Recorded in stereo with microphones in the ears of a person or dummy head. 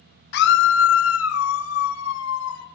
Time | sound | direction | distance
0.3 | a scream | 55° left (ahead or behind) | 0.7 m